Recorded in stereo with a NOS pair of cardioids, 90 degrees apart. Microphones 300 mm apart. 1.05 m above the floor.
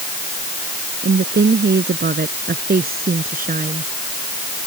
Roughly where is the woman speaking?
Ahead right.